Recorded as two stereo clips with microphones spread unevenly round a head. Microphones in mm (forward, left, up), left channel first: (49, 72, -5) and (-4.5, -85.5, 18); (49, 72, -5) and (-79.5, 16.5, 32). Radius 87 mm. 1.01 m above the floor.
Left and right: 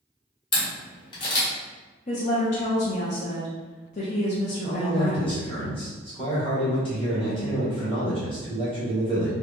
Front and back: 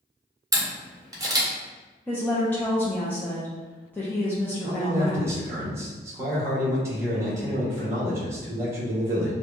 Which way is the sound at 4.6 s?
130° left.